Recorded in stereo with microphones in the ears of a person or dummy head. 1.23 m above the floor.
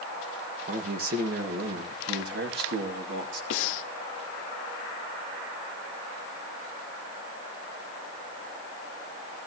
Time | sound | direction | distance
0.7 | a man speaking | 45° right (ahead or behind) | 1.4 m
3.5 | breathing | 75° left (ahead or behind) | 1.1 m